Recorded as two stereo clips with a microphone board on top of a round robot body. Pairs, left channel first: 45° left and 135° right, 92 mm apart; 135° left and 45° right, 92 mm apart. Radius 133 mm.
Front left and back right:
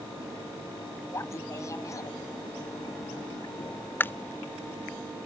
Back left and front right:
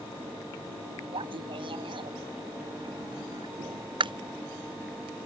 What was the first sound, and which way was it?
Laughter, 15° right.